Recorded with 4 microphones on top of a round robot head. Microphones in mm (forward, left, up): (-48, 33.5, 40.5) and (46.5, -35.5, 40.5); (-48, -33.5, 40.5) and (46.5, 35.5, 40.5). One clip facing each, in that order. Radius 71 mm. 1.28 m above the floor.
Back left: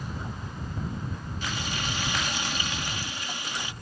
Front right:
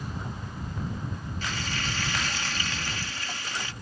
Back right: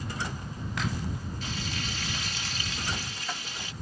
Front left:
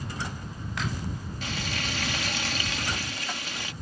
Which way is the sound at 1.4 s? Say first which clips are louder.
Back left 1 dB, front left 5 dB; 70° left.